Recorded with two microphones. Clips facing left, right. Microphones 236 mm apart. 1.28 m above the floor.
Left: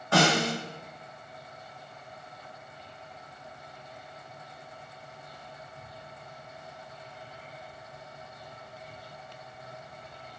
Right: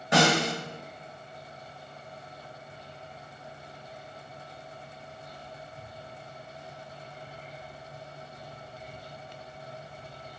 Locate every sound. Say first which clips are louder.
0.1 s a snare drum: right 1 dB; 20° right (ahead or behind), 0.9 m